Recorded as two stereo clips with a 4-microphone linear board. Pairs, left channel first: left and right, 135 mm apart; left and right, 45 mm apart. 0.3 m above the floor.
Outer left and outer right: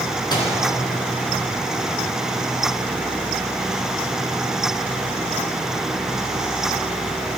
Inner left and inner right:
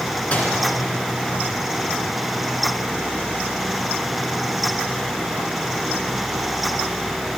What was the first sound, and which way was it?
A microwave, 30° left (ahead or behind).